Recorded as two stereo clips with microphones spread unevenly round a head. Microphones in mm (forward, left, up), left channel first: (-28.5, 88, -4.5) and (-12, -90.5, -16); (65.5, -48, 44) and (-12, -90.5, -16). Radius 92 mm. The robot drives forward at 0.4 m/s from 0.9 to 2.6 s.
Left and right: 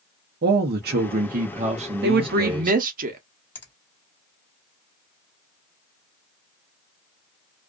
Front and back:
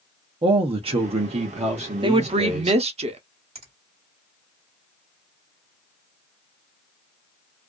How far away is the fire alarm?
I don't hear a fire alarm.